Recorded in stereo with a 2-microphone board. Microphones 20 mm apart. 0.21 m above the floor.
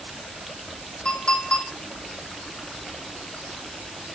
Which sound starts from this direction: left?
A clink, at 1.1 s.